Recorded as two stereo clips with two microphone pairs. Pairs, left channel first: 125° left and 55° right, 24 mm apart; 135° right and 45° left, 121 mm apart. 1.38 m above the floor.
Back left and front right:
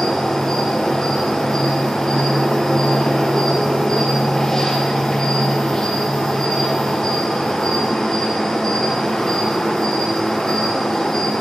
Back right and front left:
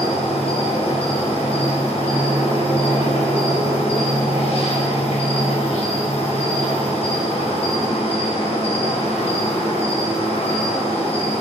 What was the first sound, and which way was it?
An insect, 155° right.